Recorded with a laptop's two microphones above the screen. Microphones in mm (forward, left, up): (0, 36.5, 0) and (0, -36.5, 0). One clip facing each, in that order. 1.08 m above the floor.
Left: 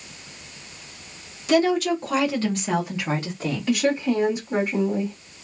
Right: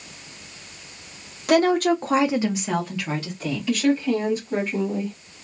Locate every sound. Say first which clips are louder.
1.5 s a woman speaking: right 2 dB; 55° right (ahead or behind), 0.9 m; by 3.8 s 45° left (ahead or behind), 1.0 m
3.7 s a woman speaking: right 1 dB; 15° left (ahead or behind), 1.0 m